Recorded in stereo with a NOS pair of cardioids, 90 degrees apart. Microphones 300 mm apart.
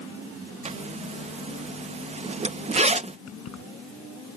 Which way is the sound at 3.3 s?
55° left.